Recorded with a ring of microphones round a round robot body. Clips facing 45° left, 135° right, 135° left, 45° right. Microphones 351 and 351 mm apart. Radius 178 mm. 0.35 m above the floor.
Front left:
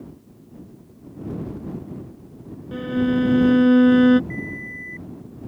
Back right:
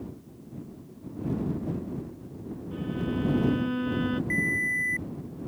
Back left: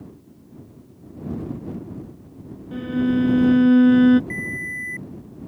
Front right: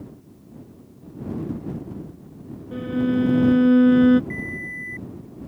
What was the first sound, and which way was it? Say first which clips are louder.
A violin: front left 11 dB, back left 1 dB; 55° left.